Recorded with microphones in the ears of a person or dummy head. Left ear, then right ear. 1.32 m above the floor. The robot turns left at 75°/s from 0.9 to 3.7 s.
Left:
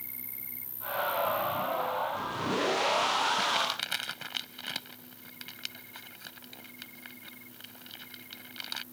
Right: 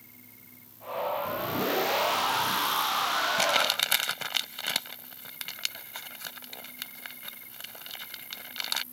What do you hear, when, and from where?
0.0 s an insect: 40° left; by 8.9 s 170° right
3.4 s crumpling: 55° right (ahead or behind); by 8.8 s 30° right (ahead or behind)